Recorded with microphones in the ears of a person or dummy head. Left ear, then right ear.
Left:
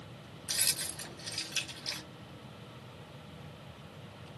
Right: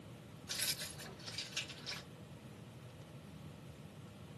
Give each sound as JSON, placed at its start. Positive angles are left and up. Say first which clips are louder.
{"t": 0.5, "sound": "keys jangling", "louder": "left 7 dB", "side_deg": 50, "distance_m": 1.3}